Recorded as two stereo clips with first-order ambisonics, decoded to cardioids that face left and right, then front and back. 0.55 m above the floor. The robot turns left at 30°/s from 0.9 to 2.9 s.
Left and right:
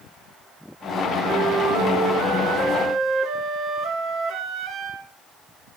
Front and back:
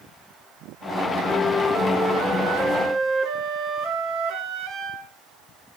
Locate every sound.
1.2 s a flute: 90° right, 1.3 m; by 5.1 s 140° right, 1.3 m